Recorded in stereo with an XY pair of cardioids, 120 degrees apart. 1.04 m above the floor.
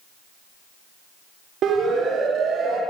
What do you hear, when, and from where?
1.6 s a siren: 60° right, 3 m